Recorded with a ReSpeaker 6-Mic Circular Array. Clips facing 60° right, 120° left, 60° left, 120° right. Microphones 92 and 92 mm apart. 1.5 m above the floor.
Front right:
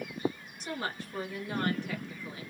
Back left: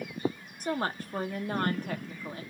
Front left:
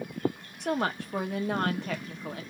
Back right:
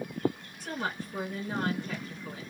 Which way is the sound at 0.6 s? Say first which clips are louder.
Back left 5 dB, front left 6 dB; 75° left.